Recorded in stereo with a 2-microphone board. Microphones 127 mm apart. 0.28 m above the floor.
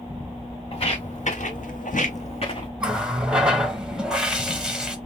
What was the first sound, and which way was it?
Footsteps, 45° left (ahead or behind).